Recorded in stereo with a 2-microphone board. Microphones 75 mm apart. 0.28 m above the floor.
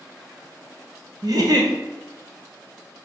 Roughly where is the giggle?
Right.